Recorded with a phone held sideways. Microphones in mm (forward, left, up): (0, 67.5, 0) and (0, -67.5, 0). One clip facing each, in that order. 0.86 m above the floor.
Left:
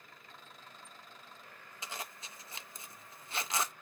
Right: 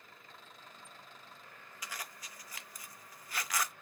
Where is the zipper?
25° left (ahead or behind), 0.5 m.